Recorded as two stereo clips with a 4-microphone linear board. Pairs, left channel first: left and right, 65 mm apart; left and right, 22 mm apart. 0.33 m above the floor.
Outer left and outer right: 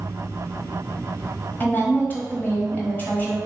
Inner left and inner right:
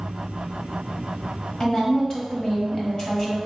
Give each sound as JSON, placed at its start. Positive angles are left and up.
{"t": 1.6, "sound": "a woman speaking", "side_deg": 30, "distance_m": 1.4}